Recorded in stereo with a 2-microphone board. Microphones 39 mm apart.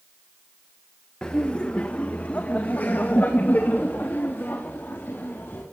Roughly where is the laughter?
Left.